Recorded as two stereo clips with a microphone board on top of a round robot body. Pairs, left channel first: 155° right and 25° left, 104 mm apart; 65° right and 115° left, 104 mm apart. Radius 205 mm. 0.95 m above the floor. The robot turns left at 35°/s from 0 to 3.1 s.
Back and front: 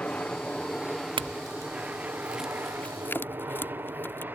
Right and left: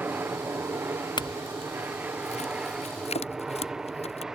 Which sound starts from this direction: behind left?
An aircraft, at 0.0 s.